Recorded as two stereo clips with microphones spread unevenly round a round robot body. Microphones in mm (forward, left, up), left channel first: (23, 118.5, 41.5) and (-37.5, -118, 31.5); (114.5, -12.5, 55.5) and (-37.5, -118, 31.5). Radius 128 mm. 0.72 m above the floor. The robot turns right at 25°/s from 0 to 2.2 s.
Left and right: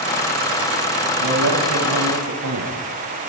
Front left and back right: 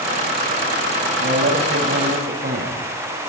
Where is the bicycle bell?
I don't hear a bicycle bell.